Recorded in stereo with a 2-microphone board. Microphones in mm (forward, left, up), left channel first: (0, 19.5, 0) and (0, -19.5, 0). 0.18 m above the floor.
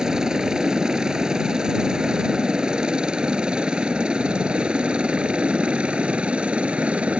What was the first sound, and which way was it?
A helicopter, 20° right (ahead or behind).